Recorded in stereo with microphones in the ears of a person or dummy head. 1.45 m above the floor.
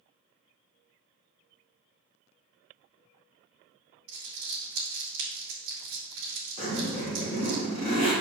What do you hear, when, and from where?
4.1 s crumpling: 60° right (ahead or behind), 1.7 m
6.6 s a zipper: 35° left (ahead or behind), 3 m